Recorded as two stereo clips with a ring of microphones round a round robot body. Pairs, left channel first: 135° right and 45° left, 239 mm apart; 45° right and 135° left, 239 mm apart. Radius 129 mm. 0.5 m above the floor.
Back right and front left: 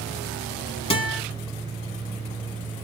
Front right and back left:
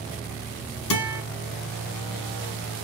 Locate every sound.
0.9 s a guitar: 70° right, 3.5 m